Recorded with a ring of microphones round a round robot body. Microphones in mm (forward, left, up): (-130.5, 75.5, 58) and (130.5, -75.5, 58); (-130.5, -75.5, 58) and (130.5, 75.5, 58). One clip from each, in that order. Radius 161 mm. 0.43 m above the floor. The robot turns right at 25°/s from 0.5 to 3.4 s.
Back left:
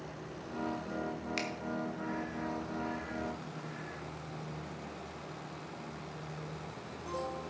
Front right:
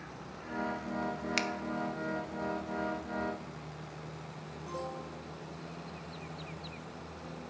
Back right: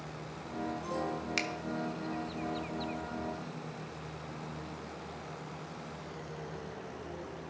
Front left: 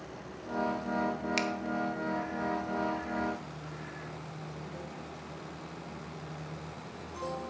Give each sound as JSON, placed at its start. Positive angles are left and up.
{"t": 1.4, "sound": "a finger snap", "azimuth_deg": -60, "distance_m": 0.8}